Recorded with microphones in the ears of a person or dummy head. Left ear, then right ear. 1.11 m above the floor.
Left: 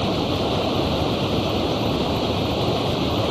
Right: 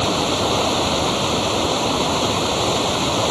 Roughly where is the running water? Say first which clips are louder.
Right 4 dB; right.